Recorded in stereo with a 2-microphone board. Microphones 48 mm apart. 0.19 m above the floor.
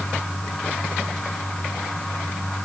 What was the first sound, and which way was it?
Only background noise.